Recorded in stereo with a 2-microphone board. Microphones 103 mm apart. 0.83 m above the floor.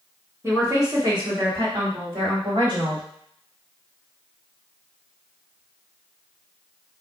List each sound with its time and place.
0.4 s a woman speaking: 25° right (ahead or behind), 1.0 m; by 3.0 s 65° right (ahead or behind), 2.0 m